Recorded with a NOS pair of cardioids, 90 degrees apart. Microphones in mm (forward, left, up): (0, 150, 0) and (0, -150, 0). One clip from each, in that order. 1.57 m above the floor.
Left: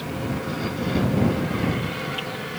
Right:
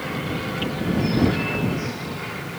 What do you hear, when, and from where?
Only background noise.